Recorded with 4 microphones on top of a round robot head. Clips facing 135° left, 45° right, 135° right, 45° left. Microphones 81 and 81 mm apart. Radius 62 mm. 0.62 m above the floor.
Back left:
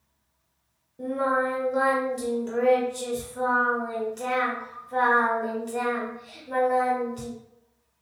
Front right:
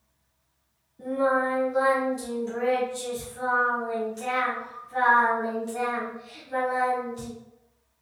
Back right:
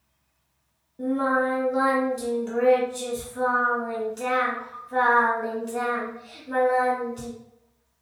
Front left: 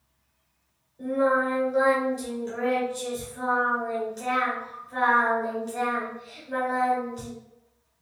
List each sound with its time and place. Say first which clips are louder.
1.0 s singing: front right 1 dB, even; straight behind, 1.6 m